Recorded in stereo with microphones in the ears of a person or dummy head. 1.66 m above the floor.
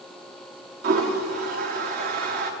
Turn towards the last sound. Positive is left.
turn(degrees=-50)  # may be behind; listen again after turning